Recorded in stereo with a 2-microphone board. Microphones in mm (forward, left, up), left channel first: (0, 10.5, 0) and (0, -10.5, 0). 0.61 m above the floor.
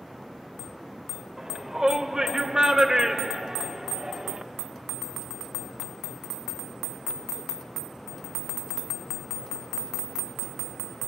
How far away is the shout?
About 3 m.